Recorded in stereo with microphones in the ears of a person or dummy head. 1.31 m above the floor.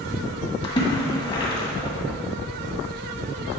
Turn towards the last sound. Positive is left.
turn(degrees=30)  # may be behind; listen again after turning